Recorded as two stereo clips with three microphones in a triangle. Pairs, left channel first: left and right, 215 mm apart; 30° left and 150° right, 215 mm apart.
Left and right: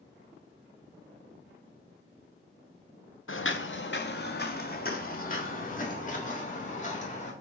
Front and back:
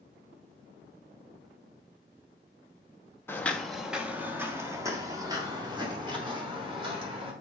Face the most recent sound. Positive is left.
turn(degrees=145)